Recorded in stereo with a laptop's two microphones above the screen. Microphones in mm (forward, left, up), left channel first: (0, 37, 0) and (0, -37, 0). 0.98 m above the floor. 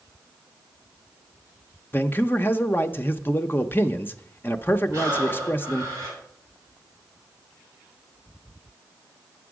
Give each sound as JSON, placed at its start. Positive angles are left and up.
{"t": 1.9, "sound": "a man speaking", "side_deg": 30, "distance_m": 0.6}
{"t": 4.9, "sound": "breathing", "side_deg": -40, "distance_m": 3.0}